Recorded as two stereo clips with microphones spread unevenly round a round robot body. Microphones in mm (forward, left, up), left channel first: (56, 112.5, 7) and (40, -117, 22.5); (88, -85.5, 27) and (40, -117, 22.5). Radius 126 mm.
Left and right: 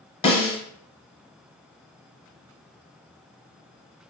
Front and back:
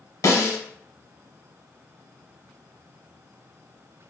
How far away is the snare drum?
About 0.8 m.